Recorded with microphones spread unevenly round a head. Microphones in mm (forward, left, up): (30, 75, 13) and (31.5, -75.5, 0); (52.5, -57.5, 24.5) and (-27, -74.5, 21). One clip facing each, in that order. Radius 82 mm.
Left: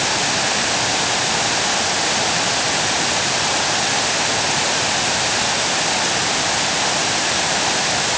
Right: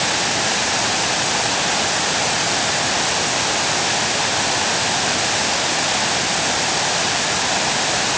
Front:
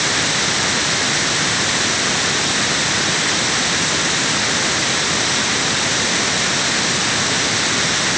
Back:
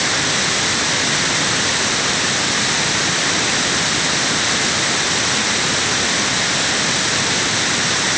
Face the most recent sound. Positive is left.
No sound to turn to.